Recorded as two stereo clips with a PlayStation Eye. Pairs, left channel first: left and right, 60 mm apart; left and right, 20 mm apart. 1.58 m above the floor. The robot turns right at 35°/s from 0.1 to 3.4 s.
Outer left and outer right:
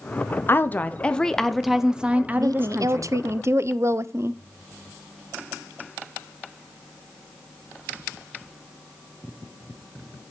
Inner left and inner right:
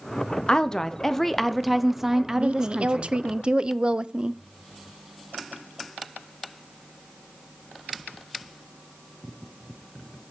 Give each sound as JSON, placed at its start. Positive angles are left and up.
{"t": 0.5, "sound": "a woman speaking", "azimuth_deg": 140, "distance_m": 0.8}
{"t": 2.4, "sound": "a woman speaking", "azimuth_deg": -85, "distance_m": 0.5}